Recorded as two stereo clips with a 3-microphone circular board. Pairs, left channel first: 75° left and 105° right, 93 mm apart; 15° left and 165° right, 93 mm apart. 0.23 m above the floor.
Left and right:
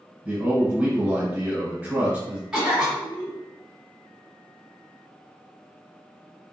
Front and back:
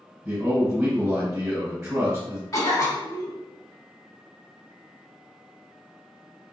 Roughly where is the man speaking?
Behind right.